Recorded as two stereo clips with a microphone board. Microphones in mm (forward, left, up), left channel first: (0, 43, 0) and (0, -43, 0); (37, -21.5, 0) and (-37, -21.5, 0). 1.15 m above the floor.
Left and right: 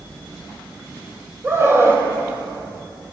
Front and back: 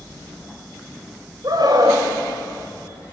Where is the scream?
150° right, 6 m.